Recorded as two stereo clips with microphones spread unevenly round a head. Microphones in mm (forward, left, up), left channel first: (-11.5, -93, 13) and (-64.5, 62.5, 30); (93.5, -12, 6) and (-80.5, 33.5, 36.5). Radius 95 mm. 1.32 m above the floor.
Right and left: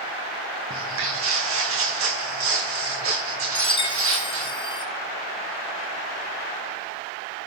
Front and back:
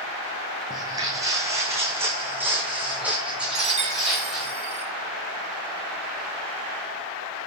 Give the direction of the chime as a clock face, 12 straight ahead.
4 o'clock.